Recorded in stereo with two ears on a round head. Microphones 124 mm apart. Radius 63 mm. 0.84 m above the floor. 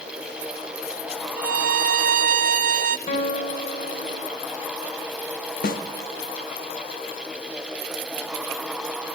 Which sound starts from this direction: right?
A violin, at 1.4 s.